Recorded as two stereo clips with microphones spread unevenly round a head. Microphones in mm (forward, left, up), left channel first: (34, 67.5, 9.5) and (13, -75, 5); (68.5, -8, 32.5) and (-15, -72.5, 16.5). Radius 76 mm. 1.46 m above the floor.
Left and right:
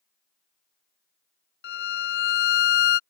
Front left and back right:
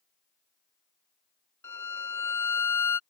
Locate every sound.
1.6 s a violin: 115° left